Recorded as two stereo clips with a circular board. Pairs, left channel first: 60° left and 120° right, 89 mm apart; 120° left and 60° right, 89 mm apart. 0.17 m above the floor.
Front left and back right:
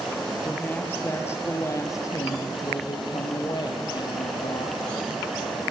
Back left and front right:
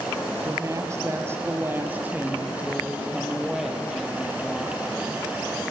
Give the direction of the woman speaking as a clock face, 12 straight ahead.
12 o'clock.